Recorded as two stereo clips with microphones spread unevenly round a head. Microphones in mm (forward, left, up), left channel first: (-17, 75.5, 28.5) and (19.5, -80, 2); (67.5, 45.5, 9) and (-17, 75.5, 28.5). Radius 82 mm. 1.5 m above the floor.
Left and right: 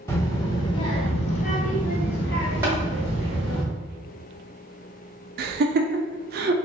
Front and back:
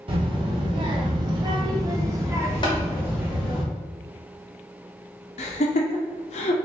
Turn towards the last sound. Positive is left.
turn(degrees=-40)